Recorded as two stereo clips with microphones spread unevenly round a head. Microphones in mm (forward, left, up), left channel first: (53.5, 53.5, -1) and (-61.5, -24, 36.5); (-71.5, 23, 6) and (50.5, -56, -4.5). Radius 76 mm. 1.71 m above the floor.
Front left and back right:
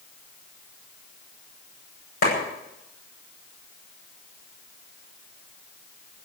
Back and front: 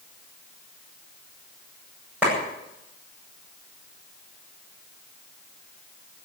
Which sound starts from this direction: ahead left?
A clap, at 2.2 s.